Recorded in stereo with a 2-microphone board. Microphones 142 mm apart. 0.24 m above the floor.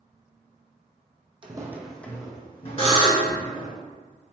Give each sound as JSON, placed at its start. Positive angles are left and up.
{"t": 1.4, "sound": "footsteps", "side_deg": -35, "distance_m": 0.5}
{"t": 2.8, "sound": "a buzzer", "side_deg": 40, "distance_m": 1.2}